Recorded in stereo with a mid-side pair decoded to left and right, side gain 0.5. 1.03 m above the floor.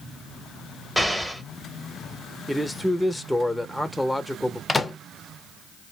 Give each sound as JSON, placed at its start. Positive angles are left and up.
{"t": 1.0, "sound": "an explosion", "azimuth_deg": 0, "distance_m": 0.8}
{"t": 2.5, "sound": "a man speaking", "azimuth_deg": 5, "distance_m": 0.7}
{"t": 4.7, "sound": "a microwave", "azimuth_deg": 25, "distance_m": 0.5}